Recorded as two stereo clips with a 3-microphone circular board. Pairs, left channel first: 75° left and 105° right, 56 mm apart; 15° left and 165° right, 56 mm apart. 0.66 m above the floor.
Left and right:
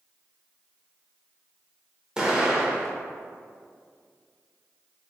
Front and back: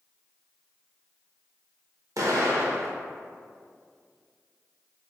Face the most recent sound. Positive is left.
turn(degrees=180)